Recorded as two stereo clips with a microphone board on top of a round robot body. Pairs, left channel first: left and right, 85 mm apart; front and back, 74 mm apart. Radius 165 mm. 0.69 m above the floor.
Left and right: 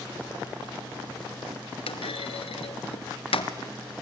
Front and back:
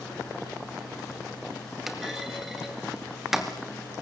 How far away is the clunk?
About 2.5 m.